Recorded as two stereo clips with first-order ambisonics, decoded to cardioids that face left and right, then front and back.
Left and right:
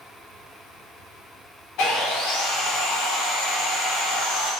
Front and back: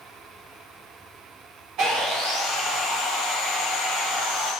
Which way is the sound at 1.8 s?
130° left.